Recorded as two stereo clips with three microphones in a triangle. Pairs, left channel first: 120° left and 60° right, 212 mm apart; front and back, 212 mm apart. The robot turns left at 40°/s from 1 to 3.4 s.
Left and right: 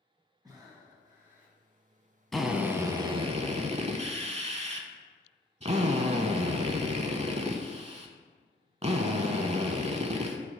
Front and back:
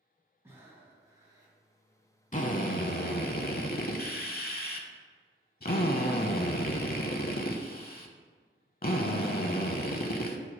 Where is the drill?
30° left, 0.6 m; by 10.4 s 10° right, 0.6 m.